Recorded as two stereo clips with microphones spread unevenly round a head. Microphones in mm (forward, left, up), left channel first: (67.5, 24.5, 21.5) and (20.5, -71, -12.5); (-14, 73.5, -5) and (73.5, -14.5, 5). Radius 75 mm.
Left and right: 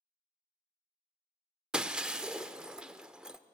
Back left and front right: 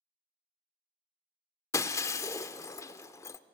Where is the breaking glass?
115° left, 0.6 m.